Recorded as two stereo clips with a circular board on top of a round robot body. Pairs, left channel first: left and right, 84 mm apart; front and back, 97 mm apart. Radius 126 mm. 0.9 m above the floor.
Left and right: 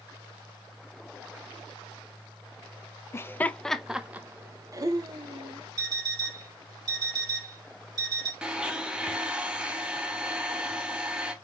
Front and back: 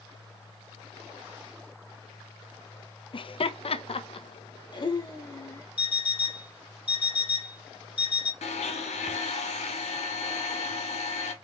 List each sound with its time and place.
3.1 s laughter: 30° left, 0.8 m; by 5.7 s 60° right, 1.2 m
5.8 s an alarm clock: 45° right, 1.8 m
8.4 s a blender: 10° right, 0.8 m